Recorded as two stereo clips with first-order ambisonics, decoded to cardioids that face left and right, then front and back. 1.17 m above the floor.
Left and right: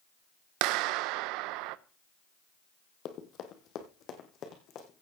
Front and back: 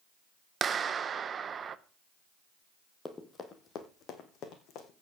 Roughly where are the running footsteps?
Left.